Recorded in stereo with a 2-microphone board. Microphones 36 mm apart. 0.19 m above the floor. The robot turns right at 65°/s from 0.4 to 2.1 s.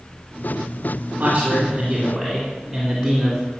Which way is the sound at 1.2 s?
55° right.